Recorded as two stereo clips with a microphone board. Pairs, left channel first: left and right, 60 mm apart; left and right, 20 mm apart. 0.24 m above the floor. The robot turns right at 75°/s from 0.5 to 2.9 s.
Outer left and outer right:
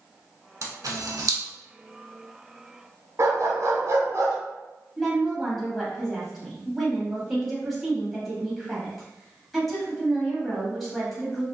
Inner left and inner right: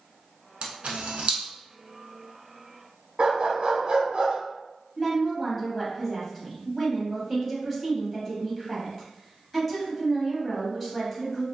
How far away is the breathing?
I don't hear breathing.